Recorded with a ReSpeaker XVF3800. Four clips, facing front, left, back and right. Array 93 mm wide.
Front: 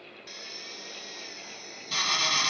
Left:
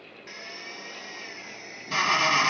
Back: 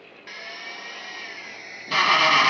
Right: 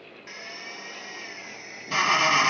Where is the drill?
175° right.